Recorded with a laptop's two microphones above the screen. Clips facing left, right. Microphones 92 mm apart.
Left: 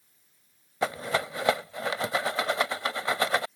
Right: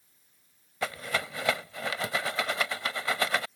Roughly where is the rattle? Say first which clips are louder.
Left 4 dB; left.